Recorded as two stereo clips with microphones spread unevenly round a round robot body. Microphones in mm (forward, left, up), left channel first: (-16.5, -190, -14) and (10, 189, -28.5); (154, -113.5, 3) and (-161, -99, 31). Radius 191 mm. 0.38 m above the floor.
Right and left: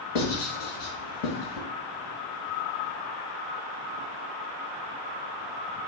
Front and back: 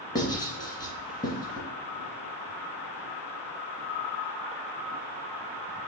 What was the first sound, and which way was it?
Writing, 80° right.